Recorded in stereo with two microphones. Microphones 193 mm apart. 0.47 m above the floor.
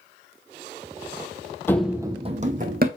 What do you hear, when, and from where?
1.7 s running footsteps: 10° left (ahead or behind), 0.6 m; by 2.9 s 50° right (ahead or behind), 1.2 m